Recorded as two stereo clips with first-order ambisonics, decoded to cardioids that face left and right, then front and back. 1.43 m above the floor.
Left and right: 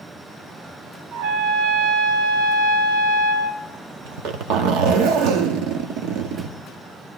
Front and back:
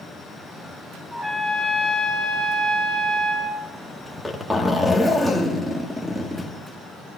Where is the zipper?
90° right, 1.2 m.